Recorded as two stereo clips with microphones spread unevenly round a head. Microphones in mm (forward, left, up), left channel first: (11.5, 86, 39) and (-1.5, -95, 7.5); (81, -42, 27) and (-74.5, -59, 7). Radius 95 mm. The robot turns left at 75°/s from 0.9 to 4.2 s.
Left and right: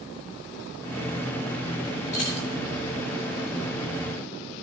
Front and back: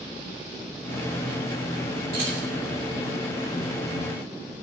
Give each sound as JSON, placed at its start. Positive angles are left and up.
{"t": 2.1, "sound": "keys jangling", "azimuth_deg": 140, "distance_m": 2.5}